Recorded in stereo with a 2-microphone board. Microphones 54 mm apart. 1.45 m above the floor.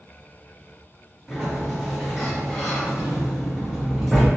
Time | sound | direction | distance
1.3 | a sliding door | 5° right (ahead or behind) | 1.1 m